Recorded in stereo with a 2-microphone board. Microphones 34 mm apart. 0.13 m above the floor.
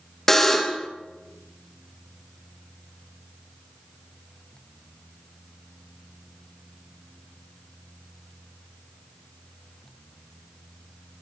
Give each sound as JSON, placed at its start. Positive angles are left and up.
{"t": 0.3, "sound": "a buzzer", "side_deg": 15, "distance_m": 2.0}